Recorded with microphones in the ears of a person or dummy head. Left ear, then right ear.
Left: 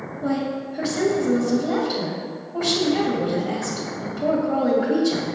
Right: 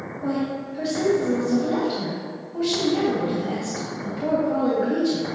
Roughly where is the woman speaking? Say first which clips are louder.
Left 2 dB; centre.